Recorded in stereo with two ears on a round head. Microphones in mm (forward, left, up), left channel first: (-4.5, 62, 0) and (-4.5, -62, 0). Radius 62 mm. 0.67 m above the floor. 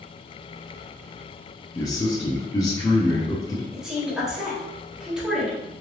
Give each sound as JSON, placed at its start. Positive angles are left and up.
{"t": 1.8, "sound": "a man speaking", "side_deg": 25, "distance_m": 0.7}
{"t": 3.7, "sound": "a woman speaking", "side_deg": -5, "distance_m": 1.5}